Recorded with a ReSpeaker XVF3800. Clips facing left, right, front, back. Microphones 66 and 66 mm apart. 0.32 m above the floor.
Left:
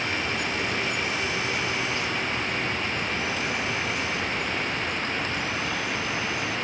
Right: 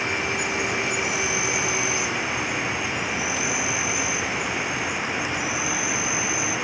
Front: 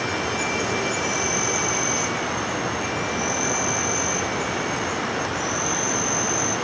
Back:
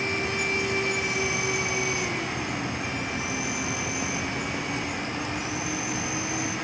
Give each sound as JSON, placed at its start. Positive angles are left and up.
{"t": 0.0, "sound": "an insect", "azimuth_deg": -10}